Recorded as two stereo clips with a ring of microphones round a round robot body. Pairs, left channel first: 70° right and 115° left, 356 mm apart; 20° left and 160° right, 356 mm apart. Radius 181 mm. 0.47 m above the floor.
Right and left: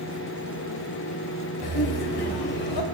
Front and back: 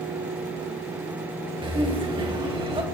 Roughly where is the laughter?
Right.